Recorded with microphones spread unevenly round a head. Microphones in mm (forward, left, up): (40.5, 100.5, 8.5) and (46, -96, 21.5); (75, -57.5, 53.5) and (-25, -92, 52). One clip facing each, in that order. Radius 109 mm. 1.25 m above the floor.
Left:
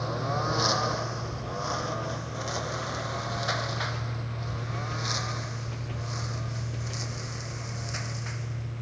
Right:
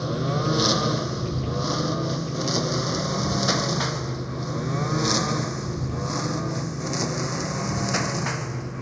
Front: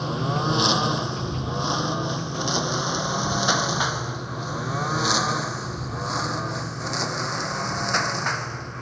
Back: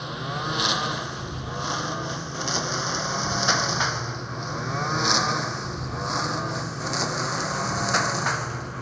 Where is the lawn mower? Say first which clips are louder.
Right 6 dB, front 5 dB; 40° right; by 8.8 s 80° right.